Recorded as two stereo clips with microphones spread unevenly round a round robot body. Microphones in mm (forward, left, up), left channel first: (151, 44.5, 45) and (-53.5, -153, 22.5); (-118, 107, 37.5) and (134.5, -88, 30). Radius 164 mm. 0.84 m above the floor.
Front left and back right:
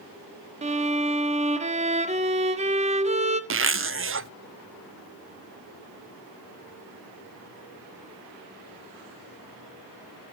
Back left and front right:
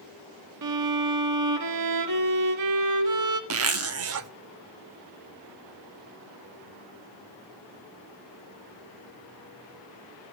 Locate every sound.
0.6 s a violin: 70° right, 1.9 m
3.5 s a zipper: 85° right, 0.8 m